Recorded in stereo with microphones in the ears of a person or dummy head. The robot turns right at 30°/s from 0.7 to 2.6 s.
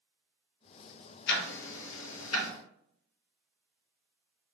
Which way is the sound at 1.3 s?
55° left (ahead or behind).